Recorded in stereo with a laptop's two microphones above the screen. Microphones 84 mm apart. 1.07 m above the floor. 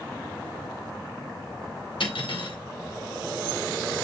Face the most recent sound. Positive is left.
turn(degrees=80)